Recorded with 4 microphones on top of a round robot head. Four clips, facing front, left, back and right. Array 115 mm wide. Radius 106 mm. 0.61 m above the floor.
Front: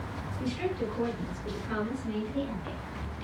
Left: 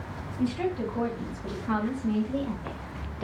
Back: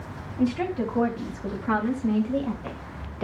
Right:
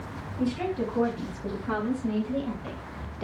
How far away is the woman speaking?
About 5 m.